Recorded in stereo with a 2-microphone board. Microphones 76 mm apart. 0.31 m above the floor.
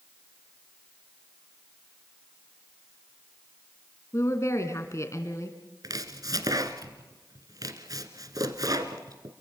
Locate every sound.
4.1 s a woman speaking: 40° left (ahead or behind), 3 m
5.8 s chopping: 55° right (ahead or behind), 1.4 m